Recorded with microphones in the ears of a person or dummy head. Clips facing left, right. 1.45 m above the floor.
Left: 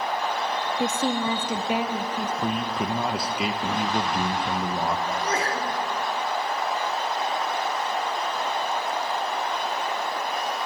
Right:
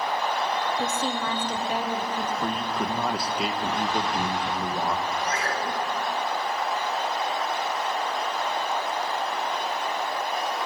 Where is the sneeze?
25° left (ahead or behind), 4 m.